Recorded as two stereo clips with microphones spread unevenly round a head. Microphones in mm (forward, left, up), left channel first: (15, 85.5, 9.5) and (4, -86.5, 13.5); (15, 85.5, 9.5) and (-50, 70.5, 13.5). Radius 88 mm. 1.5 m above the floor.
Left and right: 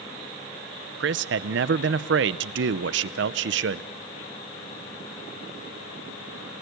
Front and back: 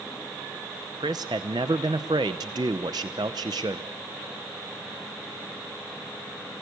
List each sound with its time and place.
1.0 s a man speaking: 115° right, 0.7 m